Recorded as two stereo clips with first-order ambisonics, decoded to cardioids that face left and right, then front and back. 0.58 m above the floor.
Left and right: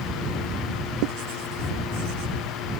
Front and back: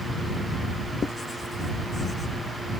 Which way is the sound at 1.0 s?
75° right.